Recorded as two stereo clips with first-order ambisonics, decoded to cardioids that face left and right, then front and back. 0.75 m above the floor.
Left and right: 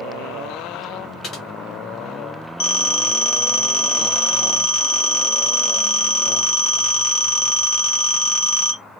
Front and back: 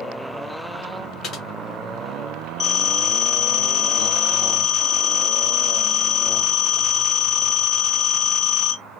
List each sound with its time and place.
1.2 s typing on a keyboard: 45° left, 1.2 m
2.6 s a phone ringing: 75° left, 1.7 m